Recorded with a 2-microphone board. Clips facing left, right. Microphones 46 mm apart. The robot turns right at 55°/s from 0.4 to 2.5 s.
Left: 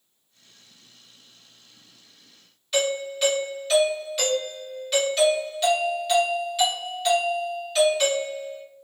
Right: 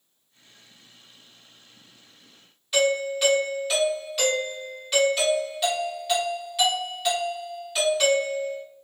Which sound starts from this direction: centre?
A doorbell, at 2.7 s.